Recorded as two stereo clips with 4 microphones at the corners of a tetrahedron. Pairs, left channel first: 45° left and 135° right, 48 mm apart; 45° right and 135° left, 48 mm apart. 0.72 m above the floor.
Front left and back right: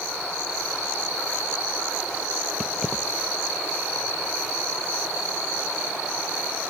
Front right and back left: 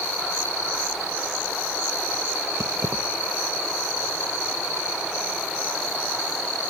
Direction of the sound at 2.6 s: 135° left.